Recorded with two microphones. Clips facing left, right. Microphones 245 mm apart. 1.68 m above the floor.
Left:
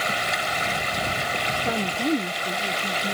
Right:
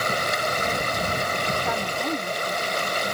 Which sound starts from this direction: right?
Running water, at 0.0 s.